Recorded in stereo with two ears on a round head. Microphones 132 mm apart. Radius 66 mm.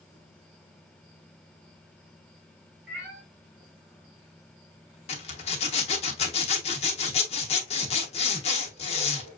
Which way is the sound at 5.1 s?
40° left (ahead or behind).